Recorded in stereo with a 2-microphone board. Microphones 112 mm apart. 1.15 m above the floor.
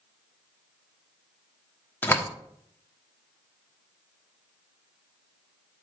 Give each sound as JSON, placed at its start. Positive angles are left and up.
{"t": 2.0, "sound": "a door slam", "side_deg": 20, "distance_m": 1.2}